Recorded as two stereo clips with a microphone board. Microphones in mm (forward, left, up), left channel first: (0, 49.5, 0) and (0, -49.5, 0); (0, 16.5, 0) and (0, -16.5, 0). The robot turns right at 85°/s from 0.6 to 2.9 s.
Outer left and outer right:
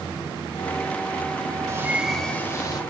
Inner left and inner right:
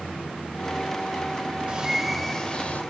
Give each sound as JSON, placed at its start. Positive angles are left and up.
{"t": 1.7, "sound": "a bird", "azimuth_deg": -40, "distance_m": 1.1}